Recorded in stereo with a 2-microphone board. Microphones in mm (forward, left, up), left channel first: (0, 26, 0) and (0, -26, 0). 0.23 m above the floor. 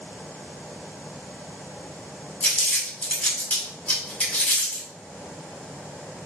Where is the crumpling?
25° left (ahead or behind), 1.6 m.